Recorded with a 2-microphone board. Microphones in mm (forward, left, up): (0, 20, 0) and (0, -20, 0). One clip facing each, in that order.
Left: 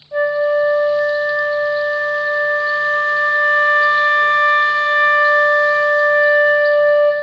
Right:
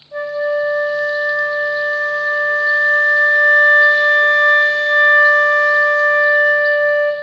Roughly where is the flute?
Left.